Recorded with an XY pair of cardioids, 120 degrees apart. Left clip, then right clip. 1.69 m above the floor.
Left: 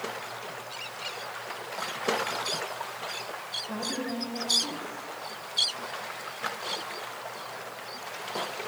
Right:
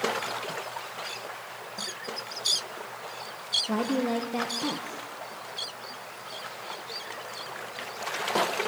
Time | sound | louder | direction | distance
3.7 | a woman speaking | right 5 dB | 60° right | 1.3 m